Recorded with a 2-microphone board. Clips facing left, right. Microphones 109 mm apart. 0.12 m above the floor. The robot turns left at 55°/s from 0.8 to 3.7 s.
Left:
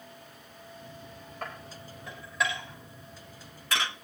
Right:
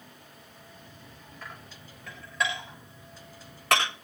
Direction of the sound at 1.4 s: 55° left (ahead or behind).